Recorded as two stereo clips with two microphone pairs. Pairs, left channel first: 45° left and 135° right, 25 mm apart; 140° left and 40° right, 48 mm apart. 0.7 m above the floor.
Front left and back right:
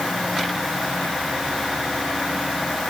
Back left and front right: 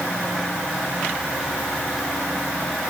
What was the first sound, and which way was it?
Only background noise.